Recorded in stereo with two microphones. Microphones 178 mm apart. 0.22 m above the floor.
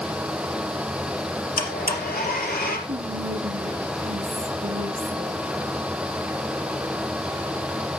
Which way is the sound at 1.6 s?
60° left (ahead or behind).